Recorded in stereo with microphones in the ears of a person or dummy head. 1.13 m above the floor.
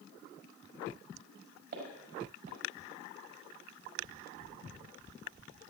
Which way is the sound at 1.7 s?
65° right (ahead or behind).